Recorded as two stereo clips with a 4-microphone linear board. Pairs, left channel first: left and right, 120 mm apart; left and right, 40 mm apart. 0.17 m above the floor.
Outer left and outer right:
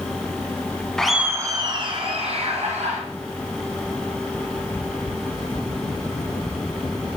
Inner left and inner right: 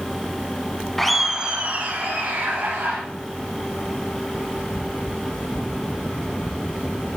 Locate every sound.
1.0 s laughter: 5° left (ahead or behind), 1.2 m; by 3.0 s 65° right (ahead or behind), 3.5 m